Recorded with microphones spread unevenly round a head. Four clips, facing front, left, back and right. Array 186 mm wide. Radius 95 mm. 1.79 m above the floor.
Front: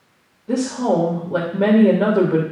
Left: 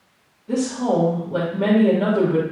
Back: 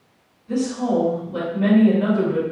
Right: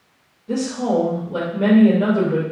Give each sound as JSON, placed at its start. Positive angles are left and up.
{"t": 0.5, "sound": "a woman speaking", "azimuth_deg": -5, "distance_m": 3.5}